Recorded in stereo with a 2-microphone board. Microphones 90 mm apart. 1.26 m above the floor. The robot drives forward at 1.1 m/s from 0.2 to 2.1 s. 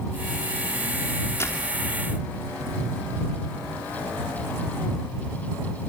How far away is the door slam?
About 2.5 m.